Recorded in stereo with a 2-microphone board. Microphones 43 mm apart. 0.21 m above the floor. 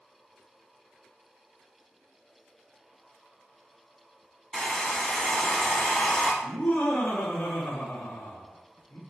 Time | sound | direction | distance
4.5 | a hair dryer | 10° left (ahead or behind) | 1.3 m
6.4 | laughter | 40° left (ahead or behind) | 1.8 m